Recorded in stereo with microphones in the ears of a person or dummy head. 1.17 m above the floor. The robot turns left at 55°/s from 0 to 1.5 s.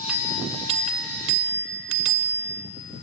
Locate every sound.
0.1 s a bell: 10° right, 1.4 m; by 2.6 s 85° right, 1.4 m